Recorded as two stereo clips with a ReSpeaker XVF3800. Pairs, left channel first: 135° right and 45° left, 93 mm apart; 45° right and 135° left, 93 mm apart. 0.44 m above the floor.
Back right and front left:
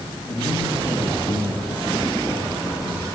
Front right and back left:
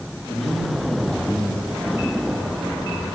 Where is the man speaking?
145° right, 5.5 m.